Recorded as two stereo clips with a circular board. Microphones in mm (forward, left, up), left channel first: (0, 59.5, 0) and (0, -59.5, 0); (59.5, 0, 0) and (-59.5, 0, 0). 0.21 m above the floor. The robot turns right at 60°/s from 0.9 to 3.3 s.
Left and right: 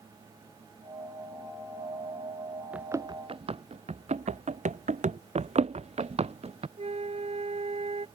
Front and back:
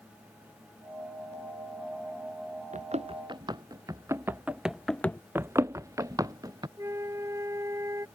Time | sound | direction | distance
2.7 | running footsteps | 170° right | ?
5.3 | running footsteps | 110° right | ?
6.8 | a flute | 115° right | ?